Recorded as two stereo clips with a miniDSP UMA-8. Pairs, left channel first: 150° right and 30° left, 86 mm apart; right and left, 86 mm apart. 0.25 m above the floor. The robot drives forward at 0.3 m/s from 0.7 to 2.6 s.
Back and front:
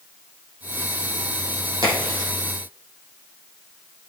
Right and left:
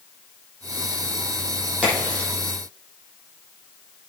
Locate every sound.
1.8 s a crack: 15° right, 6 m